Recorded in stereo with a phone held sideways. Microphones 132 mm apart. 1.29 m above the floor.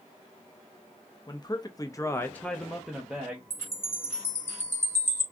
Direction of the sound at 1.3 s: 30° left (ahead or behind).